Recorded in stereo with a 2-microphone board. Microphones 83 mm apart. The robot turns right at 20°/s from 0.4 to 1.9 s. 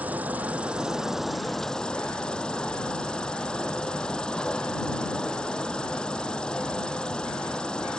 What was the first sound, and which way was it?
An insect, 20° right.